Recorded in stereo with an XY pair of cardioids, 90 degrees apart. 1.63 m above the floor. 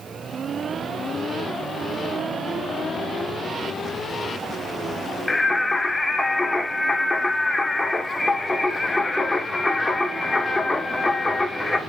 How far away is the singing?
About 1.4 m.